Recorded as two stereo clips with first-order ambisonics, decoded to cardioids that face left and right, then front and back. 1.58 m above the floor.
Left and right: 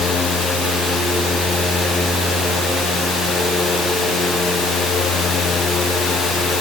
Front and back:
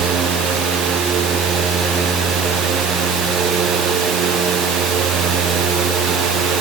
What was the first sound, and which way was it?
Only background noise.